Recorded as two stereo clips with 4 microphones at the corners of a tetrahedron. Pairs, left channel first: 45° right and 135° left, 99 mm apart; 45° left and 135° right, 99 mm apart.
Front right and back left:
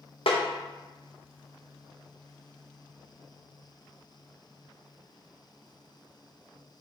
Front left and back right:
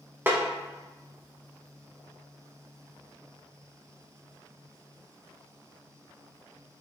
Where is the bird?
I don't hear a bird.